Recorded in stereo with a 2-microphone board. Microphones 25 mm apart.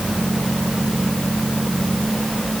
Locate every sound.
Only background noise.